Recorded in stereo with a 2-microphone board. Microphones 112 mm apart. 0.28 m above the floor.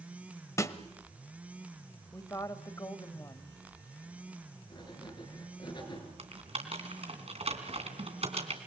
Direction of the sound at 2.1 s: 30° left (ahead or behind).